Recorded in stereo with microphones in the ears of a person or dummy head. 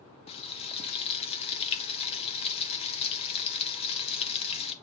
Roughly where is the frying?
Left.